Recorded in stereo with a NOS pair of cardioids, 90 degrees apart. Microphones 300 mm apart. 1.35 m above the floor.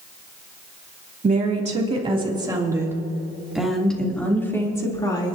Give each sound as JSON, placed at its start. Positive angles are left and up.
{"t": 1.2, "sound": "a woman speaking", "azimuth_deg": -25, "distance_m": 3.0}